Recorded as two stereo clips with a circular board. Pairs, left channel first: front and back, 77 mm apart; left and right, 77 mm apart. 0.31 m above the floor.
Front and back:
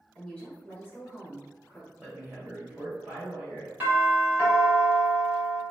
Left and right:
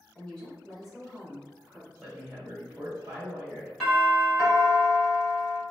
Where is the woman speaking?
45° left, 1.2 m; by 1.9 s 30° right, 1.4 m.